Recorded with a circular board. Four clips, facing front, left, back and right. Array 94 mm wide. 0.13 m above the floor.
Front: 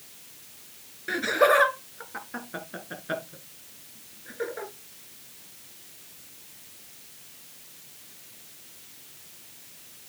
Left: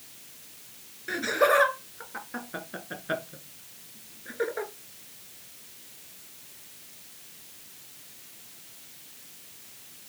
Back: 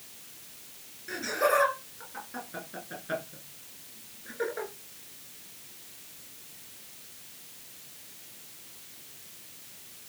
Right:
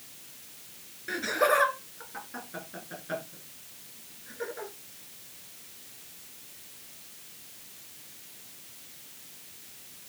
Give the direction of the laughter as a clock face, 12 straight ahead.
12 o'clock.